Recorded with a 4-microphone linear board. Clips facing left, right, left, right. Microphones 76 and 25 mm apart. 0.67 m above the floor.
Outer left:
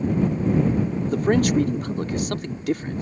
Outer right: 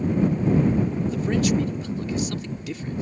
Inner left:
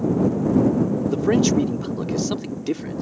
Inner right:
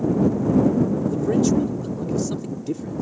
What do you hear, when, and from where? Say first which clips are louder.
1.1 s a man speaking: outer left 6 dB, inner left 3 dB; 50° left (ahead or behind)